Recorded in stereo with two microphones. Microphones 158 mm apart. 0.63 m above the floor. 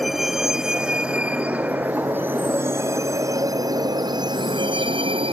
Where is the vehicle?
Centre (ahead or behind); by 5.3 s 35° right (ahead or behind).